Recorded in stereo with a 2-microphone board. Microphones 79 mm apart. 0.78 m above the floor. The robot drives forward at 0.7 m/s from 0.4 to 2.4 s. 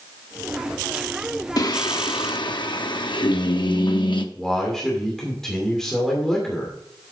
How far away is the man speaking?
About 2.5 m.